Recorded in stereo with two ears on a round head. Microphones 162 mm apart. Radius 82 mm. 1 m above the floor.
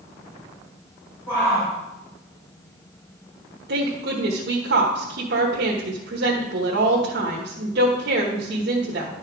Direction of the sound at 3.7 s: 65° right (ahead or behind).